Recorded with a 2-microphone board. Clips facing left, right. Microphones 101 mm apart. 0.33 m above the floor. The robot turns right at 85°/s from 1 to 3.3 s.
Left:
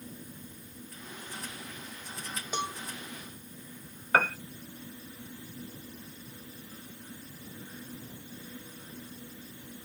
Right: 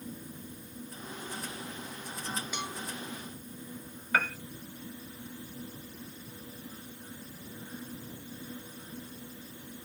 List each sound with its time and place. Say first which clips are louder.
2.5 s a cowbell: left 4 dB; 35° left (ahead or behind); by 2.8 s 15° left (ahead or behind)
4.1 s a piano: left 4 dB; 40° left (ahead or behind)